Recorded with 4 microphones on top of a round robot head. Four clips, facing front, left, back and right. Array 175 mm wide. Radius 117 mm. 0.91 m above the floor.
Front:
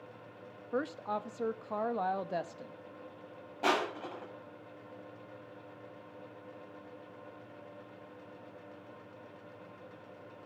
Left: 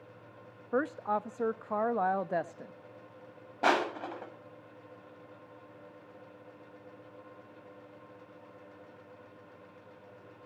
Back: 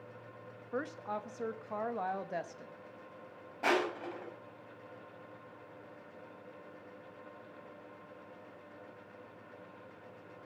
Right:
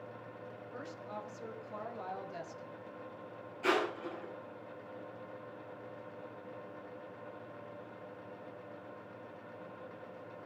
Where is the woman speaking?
75° left, 1.1 m.